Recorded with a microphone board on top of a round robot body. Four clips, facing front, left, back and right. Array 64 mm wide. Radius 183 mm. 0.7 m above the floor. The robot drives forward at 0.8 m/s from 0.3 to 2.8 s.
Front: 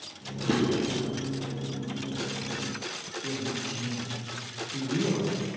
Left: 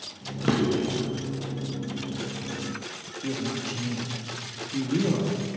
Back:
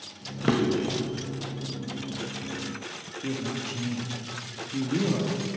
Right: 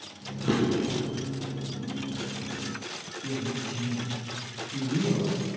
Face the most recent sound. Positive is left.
turn(degrees=145)